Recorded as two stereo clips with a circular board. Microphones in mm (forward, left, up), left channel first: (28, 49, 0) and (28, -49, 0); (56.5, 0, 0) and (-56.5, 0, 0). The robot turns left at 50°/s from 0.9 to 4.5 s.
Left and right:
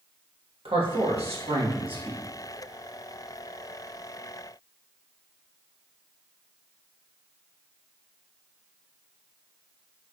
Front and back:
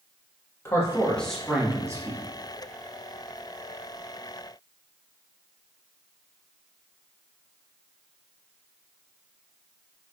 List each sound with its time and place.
0.7 s a man speaking: 70° right, 1.3 m; by 2.2 s 135° right, 1.3 m